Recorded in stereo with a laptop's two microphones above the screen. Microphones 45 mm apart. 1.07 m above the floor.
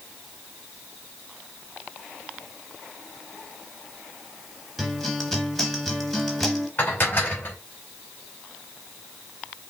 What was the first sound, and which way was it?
A guitar, 5° left (ahead or behind).